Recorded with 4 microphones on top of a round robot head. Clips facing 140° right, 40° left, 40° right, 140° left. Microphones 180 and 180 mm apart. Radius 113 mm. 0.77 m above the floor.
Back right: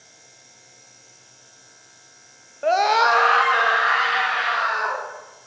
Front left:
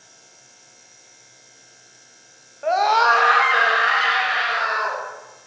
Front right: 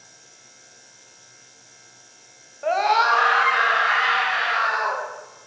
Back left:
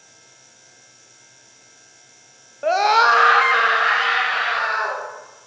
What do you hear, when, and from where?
2.6 s a scream: straight behind, 0.5 m; by 5.0 s 90° left, 1.6 m